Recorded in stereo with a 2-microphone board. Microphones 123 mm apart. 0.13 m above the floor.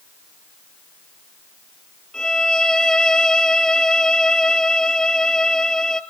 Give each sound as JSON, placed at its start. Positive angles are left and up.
{"t": 2.1, "sound": "a violin", "side_deg": 5, "distance_m": 0.8}